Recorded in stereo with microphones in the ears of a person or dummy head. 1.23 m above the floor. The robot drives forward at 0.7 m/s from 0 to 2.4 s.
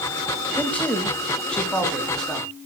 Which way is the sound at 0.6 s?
10° left (ahead or behind).